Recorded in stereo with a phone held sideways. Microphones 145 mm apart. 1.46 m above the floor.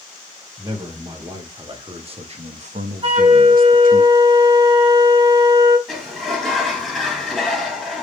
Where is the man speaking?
25° right (ahead or behind), 1.7 m; by 4.0 s 65° right (ahead or behind), 0.6 m.